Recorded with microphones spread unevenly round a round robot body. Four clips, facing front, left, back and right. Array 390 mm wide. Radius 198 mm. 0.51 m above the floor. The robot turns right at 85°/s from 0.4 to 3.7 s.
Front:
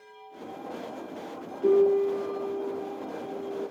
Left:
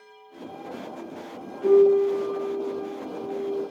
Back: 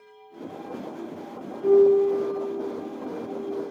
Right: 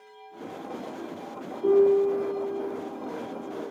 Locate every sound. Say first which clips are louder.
1.6 s a piano: left 3 dB, back 4 dB; 150° left, 1.8 m; by 3.6 s 40° right, 1.8 m